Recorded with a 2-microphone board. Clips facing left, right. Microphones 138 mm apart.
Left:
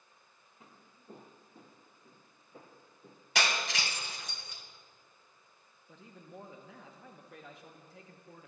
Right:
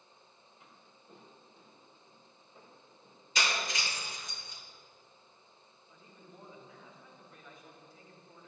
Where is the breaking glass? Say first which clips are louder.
Left 1 dB; 75° left (ahead or behind), 2.5 m.